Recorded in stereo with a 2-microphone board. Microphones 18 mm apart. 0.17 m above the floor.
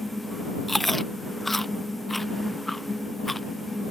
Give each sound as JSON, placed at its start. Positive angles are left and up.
{"t": 0.7, "sound": "chewing", "side_deg": 10}